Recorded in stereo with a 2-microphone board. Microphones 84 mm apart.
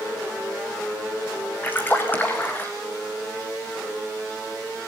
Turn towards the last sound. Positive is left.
turn(degrees=25)  # may be behind; listen again after turning